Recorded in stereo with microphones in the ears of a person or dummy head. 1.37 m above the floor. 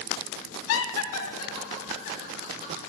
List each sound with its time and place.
0.7 s laughter: 70° left (ahead or behind), 0.5 m; by 2.7 s 60° left (ahead or behind), 2 m